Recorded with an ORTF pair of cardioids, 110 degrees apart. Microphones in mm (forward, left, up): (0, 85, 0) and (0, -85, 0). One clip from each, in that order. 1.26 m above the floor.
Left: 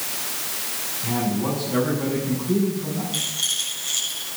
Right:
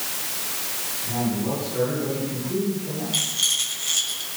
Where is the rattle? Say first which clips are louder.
Right 2 dB; 15° right, 6.5 m.